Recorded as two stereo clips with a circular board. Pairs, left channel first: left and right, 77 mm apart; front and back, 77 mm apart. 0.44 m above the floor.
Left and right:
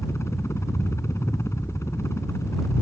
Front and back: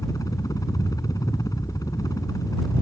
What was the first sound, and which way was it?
A helicopter, 40° left.